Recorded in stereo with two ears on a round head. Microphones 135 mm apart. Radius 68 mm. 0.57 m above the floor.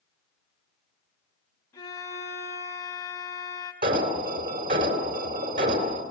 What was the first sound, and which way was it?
A violin, 25° left (ahead or behind).